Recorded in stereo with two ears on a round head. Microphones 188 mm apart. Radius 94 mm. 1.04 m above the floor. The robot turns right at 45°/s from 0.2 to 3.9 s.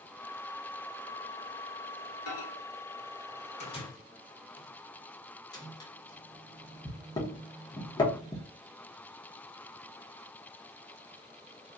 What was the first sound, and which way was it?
A microwave, 80° left.